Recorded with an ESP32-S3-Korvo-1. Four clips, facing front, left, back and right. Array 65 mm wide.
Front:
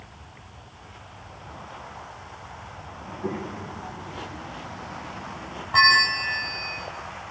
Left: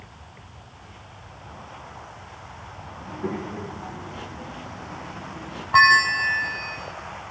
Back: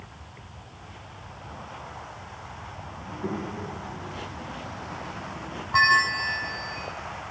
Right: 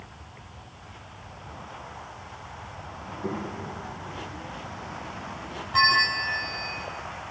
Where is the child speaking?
100° left, 8 m; by 5.6 s 95° left, 11 m.